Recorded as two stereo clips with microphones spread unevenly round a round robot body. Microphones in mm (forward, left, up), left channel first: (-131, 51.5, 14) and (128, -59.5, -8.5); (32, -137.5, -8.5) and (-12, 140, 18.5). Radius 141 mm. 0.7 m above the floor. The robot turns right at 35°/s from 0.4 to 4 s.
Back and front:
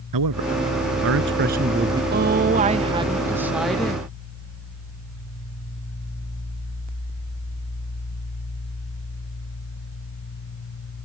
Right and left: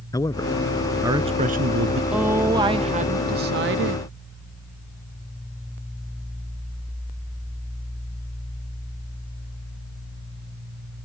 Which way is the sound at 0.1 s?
Straight ahead.